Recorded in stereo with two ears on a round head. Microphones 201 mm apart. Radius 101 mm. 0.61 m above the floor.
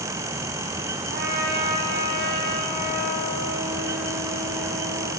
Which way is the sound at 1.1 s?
45° right (ahead or behind).